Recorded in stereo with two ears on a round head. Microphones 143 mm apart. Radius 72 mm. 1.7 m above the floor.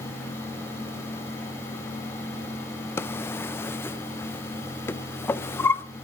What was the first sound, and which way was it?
A drawer, 15° left (ahead or behind).